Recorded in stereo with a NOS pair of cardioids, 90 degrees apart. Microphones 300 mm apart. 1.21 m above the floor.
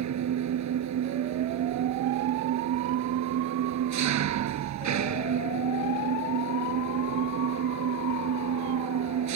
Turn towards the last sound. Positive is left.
turn(degrees=-65)